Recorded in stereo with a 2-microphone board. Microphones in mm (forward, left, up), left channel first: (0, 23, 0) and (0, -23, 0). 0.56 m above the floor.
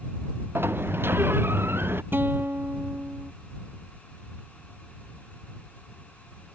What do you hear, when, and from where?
0.6 s a sliding door: 55° right (ahead or behind)
2.1 s a guitar: 50° right (ahead or behind)